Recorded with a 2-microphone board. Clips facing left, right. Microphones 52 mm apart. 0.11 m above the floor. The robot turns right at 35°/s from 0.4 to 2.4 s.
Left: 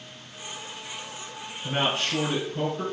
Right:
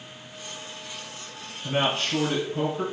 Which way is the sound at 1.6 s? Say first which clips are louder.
Right 1 dB; centre (ahead or behind).